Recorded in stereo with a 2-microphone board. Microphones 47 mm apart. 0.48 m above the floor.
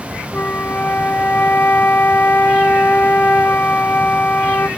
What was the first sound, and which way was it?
A flute, 40° left (ahead or behind).